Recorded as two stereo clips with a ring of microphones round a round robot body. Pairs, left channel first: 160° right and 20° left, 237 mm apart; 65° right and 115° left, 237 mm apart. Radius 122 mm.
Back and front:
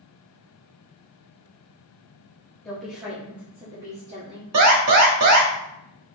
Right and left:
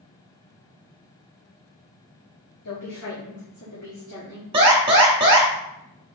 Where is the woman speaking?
75° right, 1.3 m; by 4.4 s 20° right, 2.0 m.